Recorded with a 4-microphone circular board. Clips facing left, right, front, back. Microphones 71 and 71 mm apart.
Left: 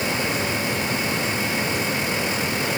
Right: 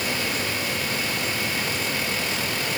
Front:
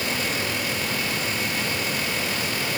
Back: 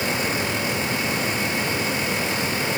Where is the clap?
I don't hear a clap.